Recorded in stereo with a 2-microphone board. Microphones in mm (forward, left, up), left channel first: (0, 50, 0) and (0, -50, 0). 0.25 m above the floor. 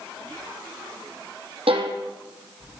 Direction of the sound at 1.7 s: 85° right.